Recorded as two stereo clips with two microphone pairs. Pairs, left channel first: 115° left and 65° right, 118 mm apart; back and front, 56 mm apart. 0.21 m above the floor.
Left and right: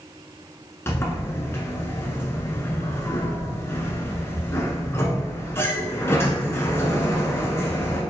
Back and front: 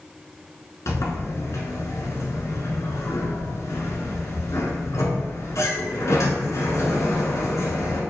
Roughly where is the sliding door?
Behind.